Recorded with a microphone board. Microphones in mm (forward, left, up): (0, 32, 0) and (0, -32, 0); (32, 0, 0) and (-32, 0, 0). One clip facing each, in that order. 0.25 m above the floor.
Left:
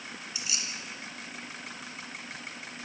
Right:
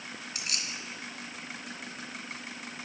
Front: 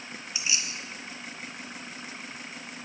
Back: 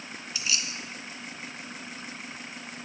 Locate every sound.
0.3 s keys jangling: 65° right, 2 m